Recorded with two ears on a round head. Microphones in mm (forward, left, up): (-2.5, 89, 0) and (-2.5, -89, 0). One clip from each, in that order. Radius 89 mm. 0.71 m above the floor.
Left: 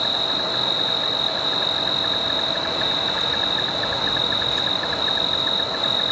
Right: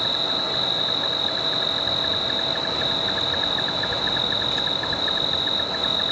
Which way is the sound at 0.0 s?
10° left (ahead or behind).